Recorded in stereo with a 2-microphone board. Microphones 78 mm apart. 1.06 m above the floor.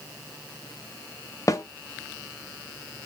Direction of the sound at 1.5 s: 45° left (ahead or behind).